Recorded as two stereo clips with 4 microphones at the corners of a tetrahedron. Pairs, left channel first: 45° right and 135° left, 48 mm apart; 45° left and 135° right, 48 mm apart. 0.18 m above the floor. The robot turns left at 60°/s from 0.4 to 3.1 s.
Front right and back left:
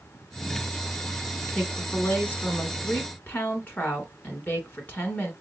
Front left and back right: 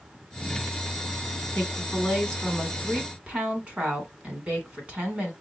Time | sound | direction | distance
1.5 | a woman speaking | 15° left | 1.5 m